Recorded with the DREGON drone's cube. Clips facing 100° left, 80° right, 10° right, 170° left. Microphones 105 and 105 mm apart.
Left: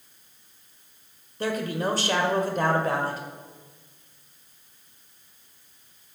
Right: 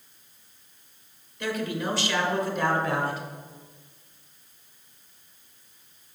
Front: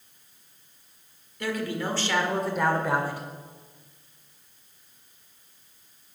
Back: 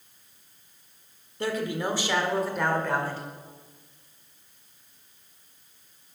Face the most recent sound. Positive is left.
turn(degrees=60)